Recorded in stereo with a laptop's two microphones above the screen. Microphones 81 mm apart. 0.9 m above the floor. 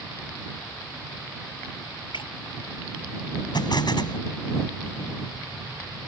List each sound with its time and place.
2.1 s breaking glass: 85° left
3.5 s an explosion: 65° left (ahead or behind)